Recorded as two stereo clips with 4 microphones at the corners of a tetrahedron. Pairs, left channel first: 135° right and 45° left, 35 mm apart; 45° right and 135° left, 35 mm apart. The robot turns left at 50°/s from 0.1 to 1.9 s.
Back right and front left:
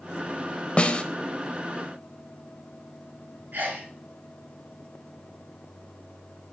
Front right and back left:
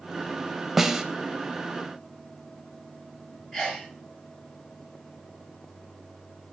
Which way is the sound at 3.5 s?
25° left.